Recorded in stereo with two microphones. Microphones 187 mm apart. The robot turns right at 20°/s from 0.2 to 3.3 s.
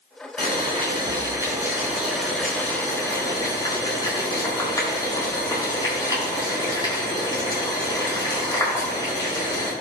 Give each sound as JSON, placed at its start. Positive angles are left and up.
{"t": 0.4, "sound": "boiling", "azimuth_deg": -35, "distance_m": 5.0}